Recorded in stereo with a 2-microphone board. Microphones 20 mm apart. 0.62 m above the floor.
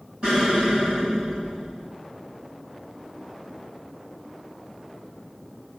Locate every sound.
0.2 s an explosion: 45° right (ahead or behind), 9 m